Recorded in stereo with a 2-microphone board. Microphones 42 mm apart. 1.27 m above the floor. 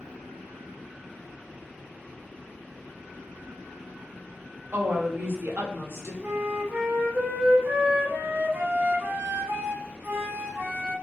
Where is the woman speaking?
60° right (ahead or behind), 0.9 m.